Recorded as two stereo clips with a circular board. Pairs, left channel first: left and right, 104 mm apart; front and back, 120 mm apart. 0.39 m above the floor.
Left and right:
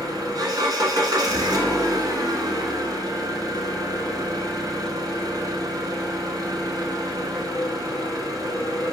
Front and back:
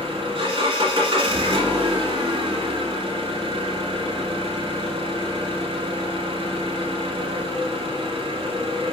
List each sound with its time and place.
0.0 s an engine running: 140° right, 1.1 m